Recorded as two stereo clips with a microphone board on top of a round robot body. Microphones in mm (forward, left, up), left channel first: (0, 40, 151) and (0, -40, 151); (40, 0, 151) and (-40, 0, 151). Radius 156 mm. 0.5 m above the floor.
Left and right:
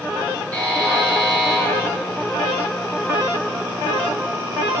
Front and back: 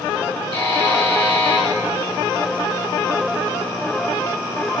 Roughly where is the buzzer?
Ahead.